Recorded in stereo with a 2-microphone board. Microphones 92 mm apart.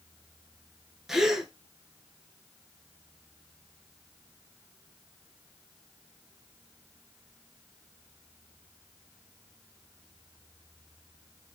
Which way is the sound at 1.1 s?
5° right (ahead or behind).